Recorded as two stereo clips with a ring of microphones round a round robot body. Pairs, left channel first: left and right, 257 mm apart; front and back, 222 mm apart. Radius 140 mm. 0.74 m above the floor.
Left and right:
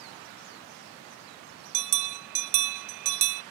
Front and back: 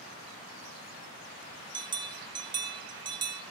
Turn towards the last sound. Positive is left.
turn(degrees=-110)